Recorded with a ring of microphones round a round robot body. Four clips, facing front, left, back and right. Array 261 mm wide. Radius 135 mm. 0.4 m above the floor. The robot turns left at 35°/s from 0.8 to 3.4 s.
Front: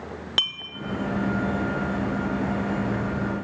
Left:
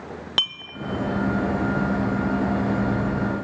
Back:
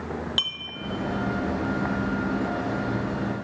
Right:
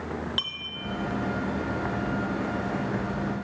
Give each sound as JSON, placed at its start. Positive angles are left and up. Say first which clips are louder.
{"t": 0.4, "sound": "a clink", "louder": "left 6 dB, front 3 dB", "azimuth_deg": 65, "distance_m": 0.6}